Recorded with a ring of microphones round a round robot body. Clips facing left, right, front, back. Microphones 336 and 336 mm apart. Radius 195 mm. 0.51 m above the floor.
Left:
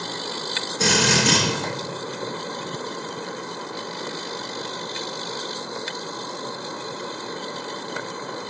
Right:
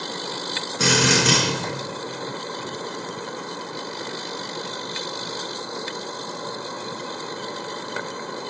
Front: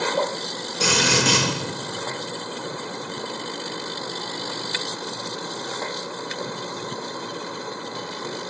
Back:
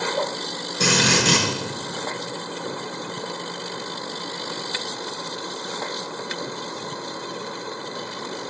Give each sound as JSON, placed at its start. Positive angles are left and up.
{"t": 0.8, "sound": "a drill", "azimuth_deg": -115, "distance_m": 6.5}